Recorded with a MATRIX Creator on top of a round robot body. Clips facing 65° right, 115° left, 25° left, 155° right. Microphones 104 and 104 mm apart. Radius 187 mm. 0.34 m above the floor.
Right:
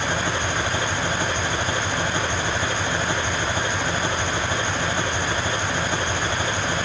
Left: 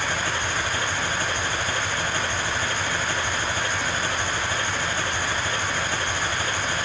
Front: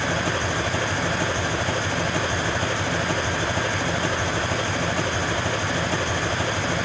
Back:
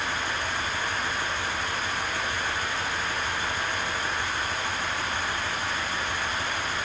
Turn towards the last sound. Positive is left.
turn(degrees=5)